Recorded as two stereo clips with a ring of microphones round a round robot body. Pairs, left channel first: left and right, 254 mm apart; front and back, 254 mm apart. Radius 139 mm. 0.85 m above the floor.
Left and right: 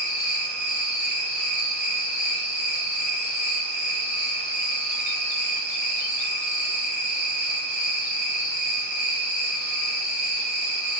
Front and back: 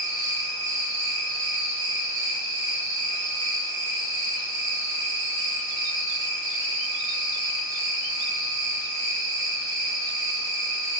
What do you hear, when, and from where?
0.0 s an insect: 175° right, 1.9 m